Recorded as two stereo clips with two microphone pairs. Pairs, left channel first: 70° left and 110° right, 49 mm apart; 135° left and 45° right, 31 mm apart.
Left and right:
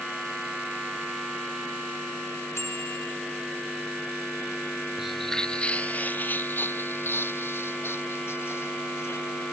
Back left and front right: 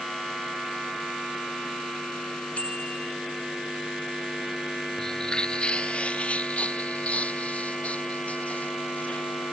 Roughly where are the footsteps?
Behind.